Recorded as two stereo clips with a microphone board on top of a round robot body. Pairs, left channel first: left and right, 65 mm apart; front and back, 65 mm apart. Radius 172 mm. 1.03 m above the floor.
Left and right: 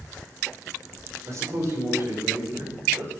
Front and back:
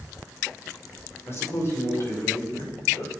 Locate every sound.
1.3 s a man speaking: 50° right, 5 m; by 3.1 s 40° right, 6 m